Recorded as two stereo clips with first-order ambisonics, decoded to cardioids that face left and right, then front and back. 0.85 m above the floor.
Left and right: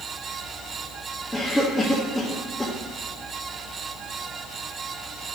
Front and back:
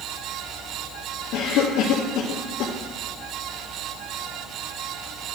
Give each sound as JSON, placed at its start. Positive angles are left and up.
{"t": 1.3, "sound": "a cough", "azimuth_deg": 5, "distance_m": 0.6}